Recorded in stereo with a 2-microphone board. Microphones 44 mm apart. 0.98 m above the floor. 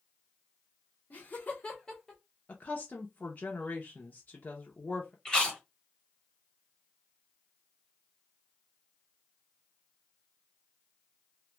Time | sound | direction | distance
1.1 | laughter | 45° left (ahead or behind) | 1.1 m
2.5 | a woman speaking | 35° left (ahead or behind) | 0.6 m
5.2 | chewing | 15° left (ahead or behind) | 1.4 m